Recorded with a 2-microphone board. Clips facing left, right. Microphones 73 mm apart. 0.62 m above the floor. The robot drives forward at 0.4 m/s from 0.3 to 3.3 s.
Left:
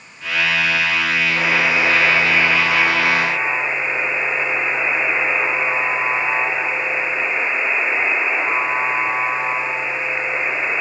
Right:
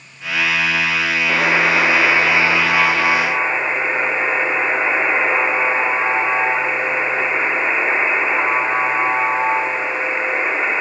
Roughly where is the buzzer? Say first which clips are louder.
Right 5 dB; right.